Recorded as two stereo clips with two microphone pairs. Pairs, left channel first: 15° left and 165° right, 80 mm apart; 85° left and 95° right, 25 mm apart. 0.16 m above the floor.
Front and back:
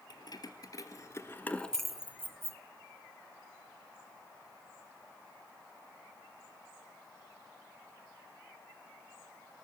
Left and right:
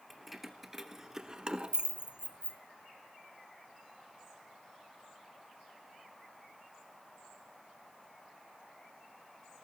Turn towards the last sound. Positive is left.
turn(degrees=-130)